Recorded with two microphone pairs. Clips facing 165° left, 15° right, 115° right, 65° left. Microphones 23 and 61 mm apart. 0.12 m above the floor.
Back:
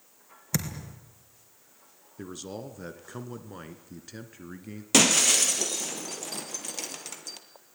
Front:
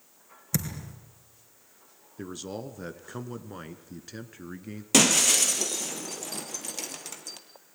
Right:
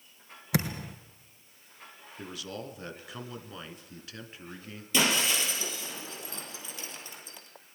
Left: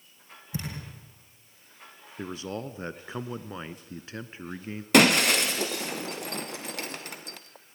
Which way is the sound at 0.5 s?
125° right.